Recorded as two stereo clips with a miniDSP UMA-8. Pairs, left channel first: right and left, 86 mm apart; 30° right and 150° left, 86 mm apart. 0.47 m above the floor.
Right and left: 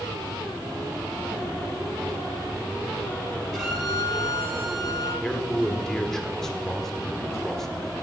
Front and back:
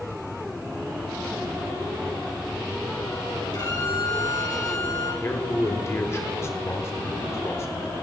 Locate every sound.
3.5 s a violin: straight ahead, 6 m
5.2 s a man speaking: 10° right, 1.5 m